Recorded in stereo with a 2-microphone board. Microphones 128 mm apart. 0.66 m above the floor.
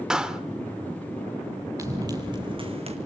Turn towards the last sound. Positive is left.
turn(degrees=-55)  # may be behind; listen again after turning